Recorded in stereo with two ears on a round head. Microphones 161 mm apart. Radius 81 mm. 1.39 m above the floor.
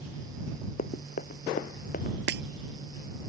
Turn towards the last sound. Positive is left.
turn(degrees=-60)  # may be behind; listen again after turning